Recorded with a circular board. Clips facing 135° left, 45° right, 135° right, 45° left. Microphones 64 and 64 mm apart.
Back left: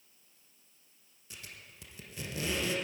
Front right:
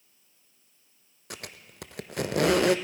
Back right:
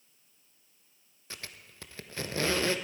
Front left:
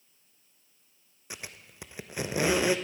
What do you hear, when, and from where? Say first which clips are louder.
1.3 s a squeak: front right 7 dB, front left 2 dB; 30° right, 0.6 m